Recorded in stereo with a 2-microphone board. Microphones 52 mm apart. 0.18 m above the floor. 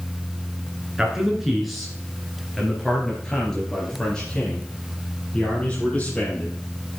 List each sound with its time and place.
1.0 s a man speaking: 10° right (ahead or behind), 3 m; by 6.6 s 25° left (ahead or behind), 5.5 m